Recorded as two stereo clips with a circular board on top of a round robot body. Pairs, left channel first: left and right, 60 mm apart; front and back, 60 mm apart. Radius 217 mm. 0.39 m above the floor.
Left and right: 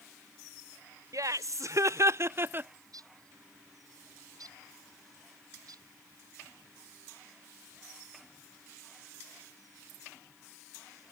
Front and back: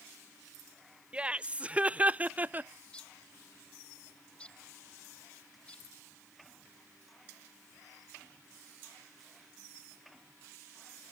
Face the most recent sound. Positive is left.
turn(degrees=-75)